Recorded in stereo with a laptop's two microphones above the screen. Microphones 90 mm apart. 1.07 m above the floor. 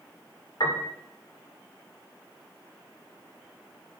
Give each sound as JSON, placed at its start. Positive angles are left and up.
{"t": 0.6, "sound": "a piano", "side_deg": 65, "distance_m": 2.5}